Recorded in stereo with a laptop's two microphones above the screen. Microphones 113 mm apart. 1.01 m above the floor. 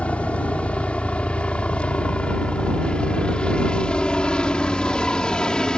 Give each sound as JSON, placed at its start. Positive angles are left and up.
{"t": 0.0, "sound": "a helicopter", "side_deg": 10}